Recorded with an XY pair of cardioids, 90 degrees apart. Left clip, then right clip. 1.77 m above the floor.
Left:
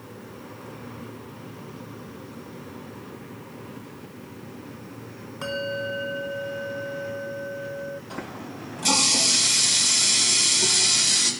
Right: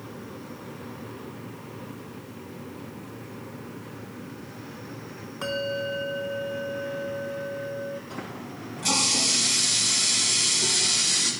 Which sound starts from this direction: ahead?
A bell, at 5.4 s.